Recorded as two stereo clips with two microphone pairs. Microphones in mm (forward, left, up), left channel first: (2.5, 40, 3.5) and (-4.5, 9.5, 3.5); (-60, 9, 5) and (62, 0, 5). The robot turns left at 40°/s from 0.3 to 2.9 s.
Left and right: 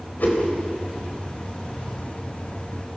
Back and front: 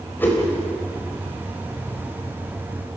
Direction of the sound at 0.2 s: 100° left.